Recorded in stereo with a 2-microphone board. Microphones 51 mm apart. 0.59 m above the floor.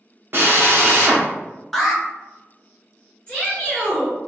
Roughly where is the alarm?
Centre.